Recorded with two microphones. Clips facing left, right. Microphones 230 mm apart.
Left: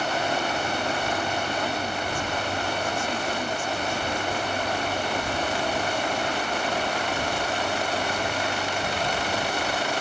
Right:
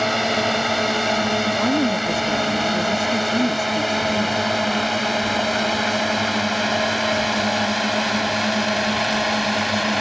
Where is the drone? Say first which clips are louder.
Right 5 dB; 80° right.